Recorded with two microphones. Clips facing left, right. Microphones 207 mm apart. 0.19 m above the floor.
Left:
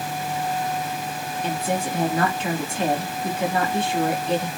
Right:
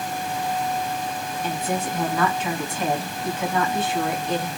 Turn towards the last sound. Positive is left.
turn(degrees=30)  # may be behind; listen again after turning